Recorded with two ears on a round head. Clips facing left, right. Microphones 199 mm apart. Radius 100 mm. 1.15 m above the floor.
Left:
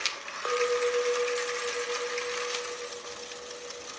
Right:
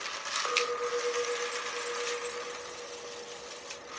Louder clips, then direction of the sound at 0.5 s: Left 6 dB; 50° left (ahead or behind).